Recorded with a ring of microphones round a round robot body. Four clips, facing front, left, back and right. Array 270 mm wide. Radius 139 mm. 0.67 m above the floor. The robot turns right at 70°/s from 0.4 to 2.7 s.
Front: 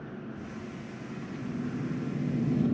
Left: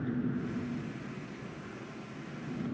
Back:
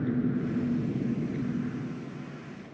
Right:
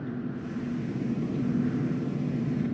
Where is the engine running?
175° left; by 2.7 s 25° right.